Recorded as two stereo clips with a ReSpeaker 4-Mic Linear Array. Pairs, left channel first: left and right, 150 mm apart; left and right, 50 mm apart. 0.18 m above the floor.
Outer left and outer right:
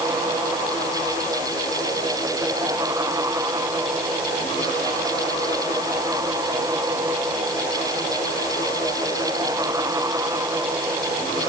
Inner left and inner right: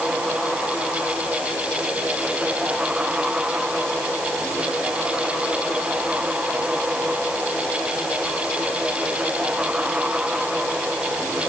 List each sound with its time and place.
Only background noise.